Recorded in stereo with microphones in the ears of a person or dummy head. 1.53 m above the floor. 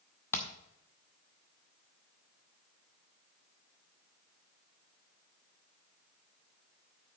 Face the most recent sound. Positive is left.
turn(degrees=10)  # may be behind; listen again after turning